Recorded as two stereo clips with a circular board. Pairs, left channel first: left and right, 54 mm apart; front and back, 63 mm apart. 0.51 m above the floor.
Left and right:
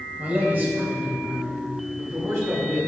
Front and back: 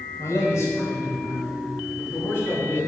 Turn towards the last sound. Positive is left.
turn(degrees=-55)